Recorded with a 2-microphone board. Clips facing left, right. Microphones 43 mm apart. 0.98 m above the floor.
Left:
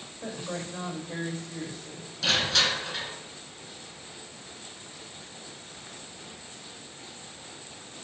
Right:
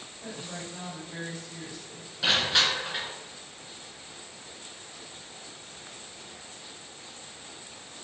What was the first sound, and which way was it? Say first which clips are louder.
A woman speaking: left 4 dB; 45° left (ahead or behind).